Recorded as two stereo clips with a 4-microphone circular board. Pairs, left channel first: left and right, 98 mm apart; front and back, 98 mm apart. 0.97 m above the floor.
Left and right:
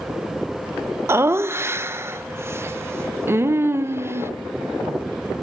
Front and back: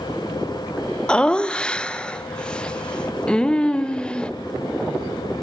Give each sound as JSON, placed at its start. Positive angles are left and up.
{"t": 1.1, "sound": "laughter", "azimuth_deg": -65, "distance_m": 0.5}